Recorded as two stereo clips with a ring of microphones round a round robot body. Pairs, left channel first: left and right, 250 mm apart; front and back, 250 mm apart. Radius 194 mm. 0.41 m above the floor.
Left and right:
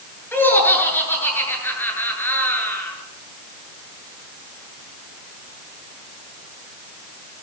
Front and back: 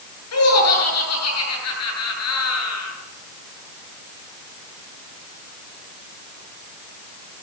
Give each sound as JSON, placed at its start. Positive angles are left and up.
{"t": 0.3, "sound": "laughter", "azimuth_deg": 10, "distance_m": 9.0}